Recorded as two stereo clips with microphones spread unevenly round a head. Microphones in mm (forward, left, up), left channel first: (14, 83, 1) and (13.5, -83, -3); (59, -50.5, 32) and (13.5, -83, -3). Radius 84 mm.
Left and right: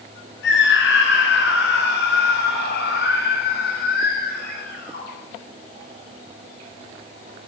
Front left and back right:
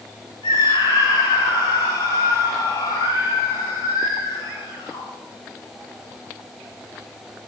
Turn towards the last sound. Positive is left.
turn(degrees=50)